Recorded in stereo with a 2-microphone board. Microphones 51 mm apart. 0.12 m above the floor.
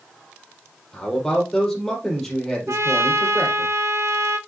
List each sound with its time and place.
0.9 s a man speaking: 5° left (ahead or behind), 3.5 m
2.7 s a trumpet: 70° right (ahead or behind), 0.8 m